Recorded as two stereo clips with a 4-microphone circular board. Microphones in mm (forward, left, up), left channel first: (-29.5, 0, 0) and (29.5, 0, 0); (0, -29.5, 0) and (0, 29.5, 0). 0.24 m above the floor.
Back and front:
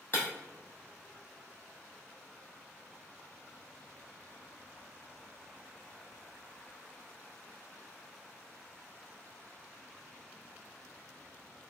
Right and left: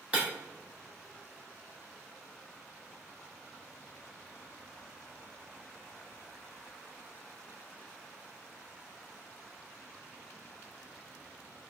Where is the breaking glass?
140° left, 0.9 m.